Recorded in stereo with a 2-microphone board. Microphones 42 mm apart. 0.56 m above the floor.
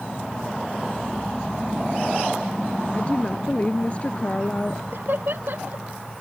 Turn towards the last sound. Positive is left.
turn(degrees=-60)  # may be behind; listen again after turning